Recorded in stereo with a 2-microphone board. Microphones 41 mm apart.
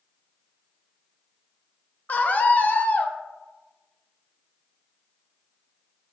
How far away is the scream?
About 0.5 m.